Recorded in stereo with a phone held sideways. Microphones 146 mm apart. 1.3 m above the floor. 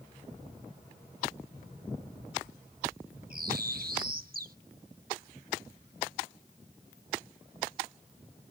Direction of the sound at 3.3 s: 85° right.